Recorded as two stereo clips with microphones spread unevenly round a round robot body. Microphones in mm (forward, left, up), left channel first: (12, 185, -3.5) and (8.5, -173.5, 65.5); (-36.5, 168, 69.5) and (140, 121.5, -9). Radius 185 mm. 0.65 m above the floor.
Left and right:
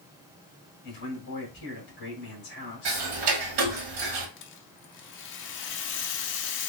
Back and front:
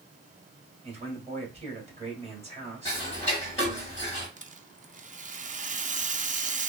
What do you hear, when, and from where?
0.8 s a man speaking: 35° left, 2.5 m
2.9 s ticking: 105° right, 1.3 m
4.4 s a rattle: 35° left, 0.7 m